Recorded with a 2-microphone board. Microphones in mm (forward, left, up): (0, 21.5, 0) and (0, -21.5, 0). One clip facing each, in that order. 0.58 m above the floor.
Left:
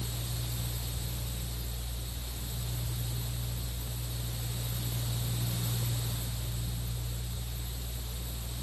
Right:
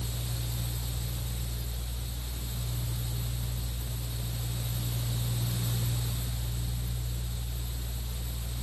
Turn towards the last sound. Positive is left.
No sound to turn to.